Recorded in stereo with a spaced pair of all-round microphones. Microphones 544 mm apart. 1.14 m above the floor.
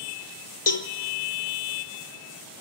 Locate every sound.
0.7 s a cowbell: 65° left (ahead or behind), 1.0 m